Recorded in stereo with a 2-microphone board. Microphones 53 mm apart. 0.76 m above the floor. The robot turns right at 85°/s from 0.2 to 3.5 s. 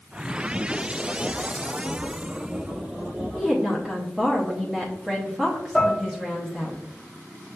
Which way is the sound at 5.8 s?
10° left (ahead or behind).